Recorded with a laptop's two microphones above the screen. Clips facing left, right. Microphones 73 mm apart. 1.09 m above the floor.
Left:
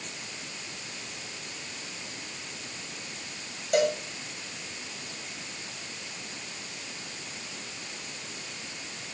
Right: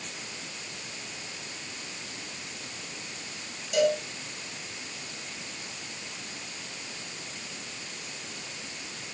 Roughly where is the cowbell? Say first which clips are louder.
Even; left.